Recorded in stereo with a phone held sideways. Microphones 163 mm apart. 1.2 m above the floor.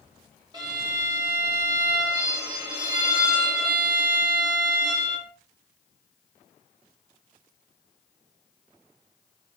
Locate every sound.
0.5 s a violin: 25° right (ahead or behind), 2.5 m